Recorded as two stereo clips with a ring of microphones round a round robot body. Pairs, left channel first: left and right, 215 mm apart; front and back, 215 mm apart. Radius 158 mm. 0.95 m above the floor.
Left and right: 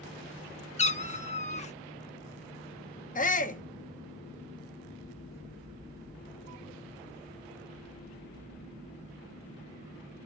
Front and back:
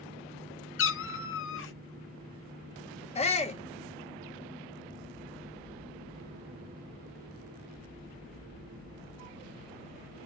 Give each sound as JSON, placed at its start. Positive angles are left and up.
{"t": 0.8, "sound": "a cat meowing", "azimuth_deg": 30, "distance_m": 0.8}
{"t": 3.1, "sound": "a shout", "azimuth_deg": 50, "distance_m": 1.0}